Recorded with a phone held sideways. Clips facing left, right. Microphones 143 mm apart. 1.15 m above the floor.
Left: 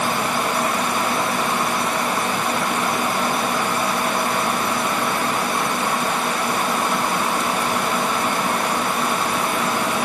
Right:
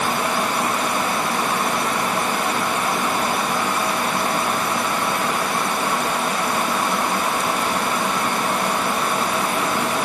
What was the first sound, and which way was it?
Only background noise.